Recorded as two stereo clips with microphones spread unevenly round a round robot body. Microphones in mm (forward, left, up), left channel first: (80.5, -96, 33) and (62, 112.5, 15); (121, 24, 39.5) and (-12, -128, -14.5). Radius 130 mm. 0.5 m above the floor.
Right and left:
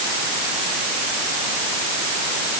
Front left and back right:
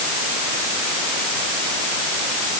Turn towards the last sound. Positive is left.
No sound to turn to.